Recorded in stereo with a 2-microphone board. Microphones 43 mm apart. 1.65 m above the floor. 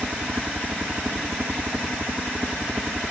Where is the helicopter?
50° right (ahead or behind); by 3.1 s 45° right (ahead or behind).